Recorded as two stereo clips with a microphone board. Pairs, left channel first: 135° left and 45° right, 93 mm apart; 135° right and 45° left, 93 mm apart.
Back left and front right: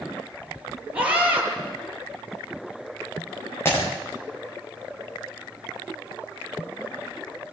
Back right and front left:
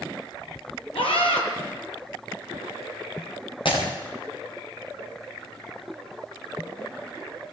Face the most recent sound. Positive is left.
turn(degrees=-160)